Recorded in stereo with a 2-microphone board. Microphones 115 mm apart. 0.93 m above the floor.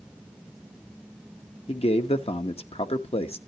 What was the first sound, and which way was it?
A man speaking, 60° left (ahead or behind).